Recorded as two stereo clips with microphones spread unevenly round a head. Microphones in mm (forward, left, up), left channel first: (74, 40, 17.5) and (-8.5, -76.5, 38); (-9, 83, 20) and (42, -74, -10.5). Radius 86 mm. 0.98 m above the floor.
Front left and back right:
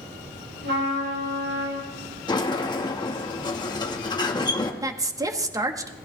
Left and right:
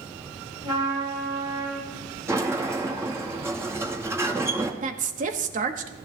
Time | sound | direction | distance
0.6 | a trumpet | 140° right | 6 m
2.3 | a sliding door | straight ahead | 1.7 m
4.8 | a woman speaking | 55° right | 1.3 m